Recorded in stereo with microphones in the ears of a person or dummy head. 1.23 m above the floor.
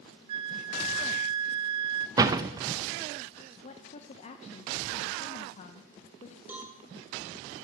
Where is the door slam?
25° right (ahead or behind), 0.6 m.